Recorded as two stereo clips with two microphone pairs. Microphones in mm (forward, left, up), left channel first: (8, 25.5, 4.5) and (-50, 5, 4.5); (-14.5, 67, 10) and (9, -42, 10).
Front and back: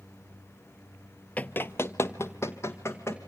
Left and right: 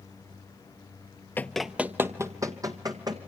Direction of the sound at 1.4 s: 55° left.